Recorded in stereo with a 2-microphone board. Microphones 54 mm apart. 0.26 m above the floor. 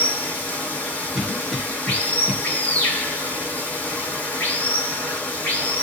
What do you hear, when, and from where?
0.0 s running water: 30° left (ahead or behind), 1.1 m
1.1 s a cough: 10° right (ahead or behind), 0.9 m